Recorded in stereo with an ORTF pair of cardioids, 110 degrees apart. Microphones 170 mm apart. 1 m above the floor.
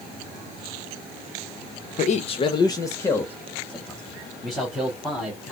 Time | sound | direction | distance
2.0 | a man speaking | 50° left | 0.6 m